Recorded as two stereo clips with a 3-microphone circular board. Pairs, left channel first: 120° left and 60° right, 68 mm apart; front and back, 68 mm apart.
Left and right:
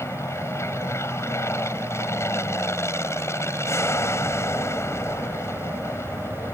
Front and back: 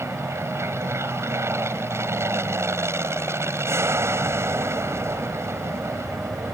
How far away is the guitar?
I don't hear a guitar.